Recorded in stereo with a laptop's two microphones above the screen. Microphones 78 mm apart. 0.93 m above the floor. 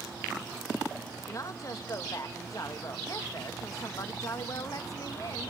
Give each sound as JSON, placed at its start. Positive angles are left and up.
{"t": 1.3, "sound": "a woman speaking", "side_deg": 45, "distance_m": 1.0}